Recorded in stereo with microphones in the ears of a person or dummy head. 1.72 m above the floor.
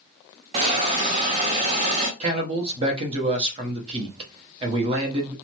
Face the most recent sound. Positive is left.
turn(degrees=-35)  # may be behind; listen again after turning